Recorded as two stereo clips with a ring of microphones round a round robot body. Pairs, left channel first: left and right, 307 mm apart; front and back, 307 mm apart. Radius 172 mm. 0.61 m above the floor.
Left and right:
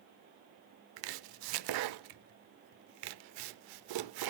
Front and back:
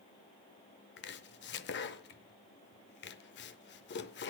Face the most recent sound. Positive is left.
turn(degrees=-60)